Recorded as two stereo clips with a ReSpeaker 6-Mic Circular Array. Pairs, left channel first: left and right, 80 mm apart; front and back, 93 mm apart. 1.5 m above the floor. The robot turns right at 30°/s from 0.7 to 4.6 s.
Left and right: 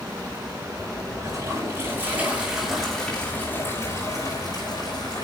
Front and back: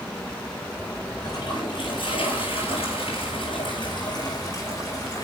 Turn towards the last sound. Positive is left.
turn(degrees=55)